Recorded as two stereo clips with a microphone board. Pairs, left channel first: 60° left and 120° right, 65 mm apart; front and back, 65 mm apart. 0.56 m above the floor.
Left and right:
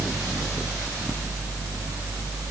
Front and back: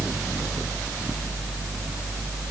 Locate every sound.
Only background noise.